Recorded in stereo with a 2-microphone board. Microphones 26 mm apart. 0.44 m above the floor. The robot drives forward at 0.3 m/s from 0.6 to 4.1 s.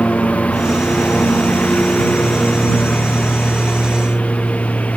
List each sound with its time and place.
0.0 s a lawn mower: 90° left